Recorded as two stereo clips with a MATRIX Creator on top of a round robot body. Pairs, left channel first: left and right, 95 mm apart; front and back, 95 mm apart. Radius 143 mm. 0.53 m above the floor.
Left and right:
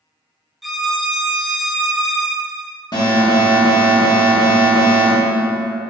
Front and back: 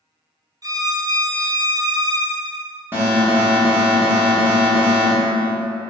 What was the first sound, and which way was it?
A violin, straight behind.